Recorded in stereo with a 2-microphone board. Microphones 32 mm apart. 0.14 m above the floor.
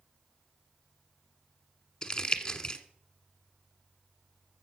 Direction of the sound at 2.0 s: 30° left (ahead or behind).